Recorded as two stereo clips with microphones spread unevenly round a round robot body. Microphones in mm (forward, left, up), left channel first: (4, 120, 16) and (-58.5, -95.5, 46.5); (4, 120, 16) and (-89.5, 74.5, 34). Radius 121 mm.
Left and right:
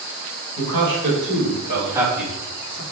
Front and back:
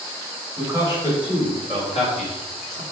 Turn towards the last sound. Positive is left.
turn(degrees=10)